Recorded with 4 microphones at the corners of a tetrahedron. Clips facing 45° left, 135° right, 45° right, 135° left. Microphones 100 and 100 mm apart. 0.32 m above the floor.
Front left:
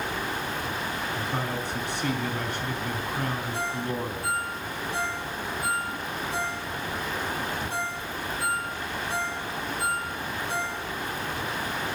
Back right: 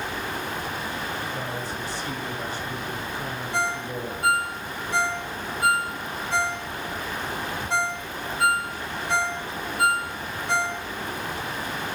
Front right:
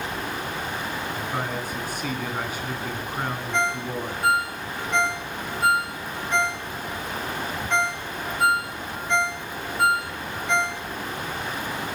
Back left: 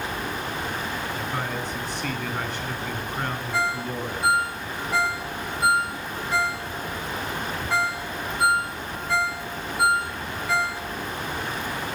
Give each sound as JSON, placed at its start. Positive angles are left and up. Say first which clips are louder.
{"t": 1.1, "sound": "a man speaking", "louder": "front left 1 dB, even", "azimuth_deg": 40, "distance_m": 3.5}
{"t": 3.5, "sound": "a ringtone", "louder": "back right 2 dB, front right 1 dB", "azimuth_deg": -140, "distance_m": 1.8}